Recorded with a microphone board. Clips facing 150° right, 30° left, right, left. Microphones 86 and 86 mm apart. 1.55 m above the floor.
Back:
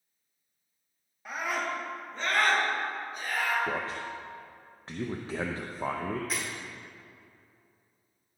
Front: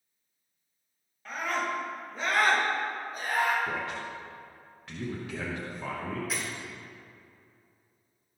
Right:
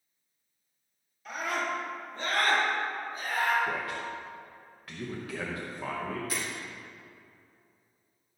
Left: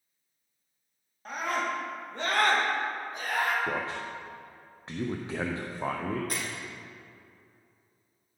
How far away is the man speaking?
About 0.7 m.